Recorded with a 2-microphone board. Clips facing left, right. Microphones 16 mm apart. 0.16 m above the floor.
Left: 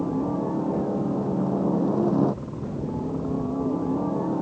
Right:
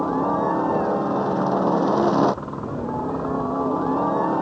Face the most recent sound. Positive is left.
turn(degrees=-55)  # may be behind; listen again after turning